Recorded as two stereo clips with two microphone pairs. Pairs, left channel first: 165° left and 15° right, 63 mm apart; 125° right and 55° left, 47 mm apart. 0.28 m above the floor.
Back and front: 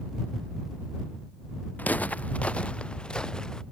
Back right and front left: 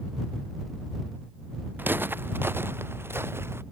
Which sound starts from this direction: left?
Footsteps, at 1.8 s.